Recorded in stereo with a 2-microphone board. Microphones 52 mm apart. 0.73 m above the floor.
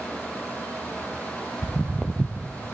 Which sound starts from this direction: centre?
Footsteps, at 1.6 s.